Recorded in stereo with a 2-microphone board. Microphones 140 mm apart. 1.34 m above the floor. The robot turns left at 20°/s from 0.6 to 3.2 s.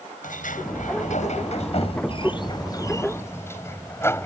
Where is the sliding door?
70° left; by 4.3 s 15° left.